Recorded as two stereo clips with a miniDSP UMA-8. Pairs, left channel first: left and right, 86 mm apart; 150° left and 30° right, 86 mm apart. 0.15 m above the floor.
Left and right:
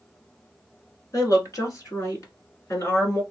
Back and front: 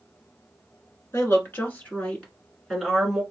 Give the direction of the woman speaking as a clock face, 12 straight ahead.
8 o'clock.